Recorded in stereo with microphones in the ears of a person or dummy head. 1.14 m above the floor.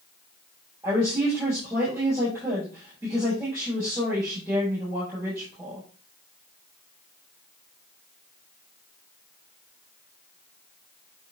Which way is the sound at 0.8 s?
10° right (ahead or behind).